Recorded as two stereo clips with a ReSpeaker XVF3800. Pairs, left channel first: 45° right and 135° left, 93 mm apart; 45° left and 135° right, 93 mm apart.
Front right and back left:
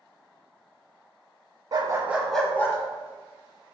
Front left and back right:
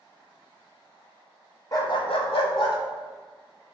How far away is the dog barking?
About 0.6 m.